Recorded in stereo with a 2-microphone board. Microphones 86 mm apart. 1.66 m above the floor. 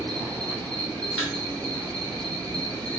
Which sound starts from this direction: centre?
A thud, at 1.2 s.